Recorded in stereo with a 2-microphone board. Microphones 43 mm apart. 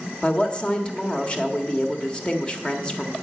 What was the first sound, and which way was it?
A woman speaking, 25° left (ahead or behind).